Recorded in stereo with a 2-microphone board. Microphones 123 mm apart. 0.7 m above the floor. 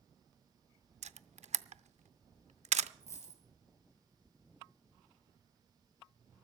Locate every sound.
1.0 s a camera shutter: 65° right (ahead or behind), 0.6 m
3.0 s a dropped coin: 25° left (ahead or behind), 4.5 m